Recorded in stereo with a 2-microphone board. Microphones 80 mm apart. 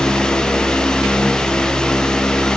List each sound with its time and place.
Only background noise.